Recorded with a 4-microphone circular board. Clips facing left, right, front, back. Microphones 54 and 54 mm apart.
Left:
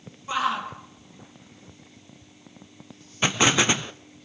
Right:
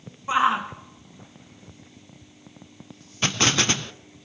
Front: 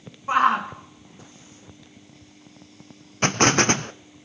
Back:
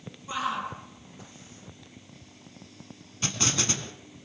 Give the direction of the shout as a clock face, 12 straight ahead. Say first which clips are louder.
Right 5 dB, front 11 dB; 1 o'clock.